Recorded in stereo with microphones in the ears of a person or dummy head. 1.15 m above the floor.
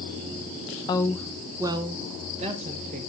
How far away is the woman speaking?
About 0.6 m.